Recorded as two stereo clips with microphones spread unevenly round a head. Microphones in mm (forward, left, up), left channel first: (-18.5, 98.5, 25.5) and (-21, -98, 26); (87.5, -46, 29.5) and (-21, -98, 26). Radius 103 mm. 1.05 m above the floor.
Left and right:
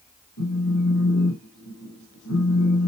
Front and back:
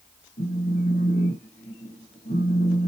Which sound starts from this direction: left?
A phone buzzing, at 0.4 s.